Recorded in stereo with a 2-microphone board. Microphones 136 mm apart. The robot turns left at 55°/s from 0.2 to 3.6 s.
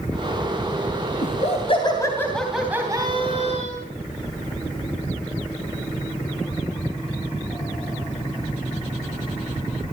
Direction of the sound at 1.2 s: 70° left.